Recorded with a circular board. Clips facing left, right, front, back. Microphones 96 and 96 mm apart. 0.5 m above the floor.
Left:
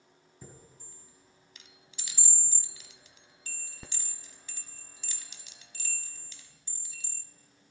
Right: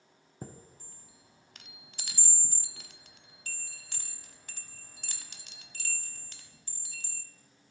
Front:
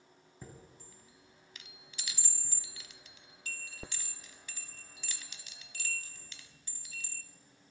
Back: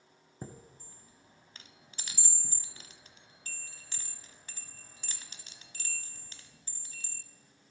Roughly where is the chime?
Behind right.